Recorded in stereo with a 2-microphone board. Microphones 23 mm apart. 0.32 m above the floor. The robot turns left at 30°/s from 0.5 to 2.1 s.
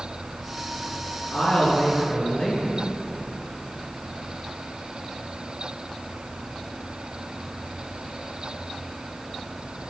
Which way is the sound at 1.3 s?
60° left (ahead or behind).